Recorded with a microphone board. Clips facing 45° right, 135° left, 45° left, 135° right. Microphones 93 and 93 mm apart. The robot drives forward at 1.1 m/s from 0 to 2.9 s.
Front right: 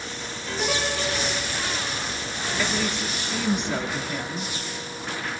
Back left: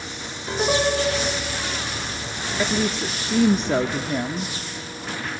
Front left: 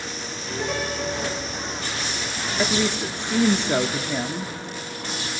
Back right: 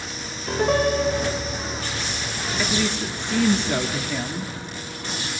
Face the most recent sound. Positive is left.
turn(degrees=105)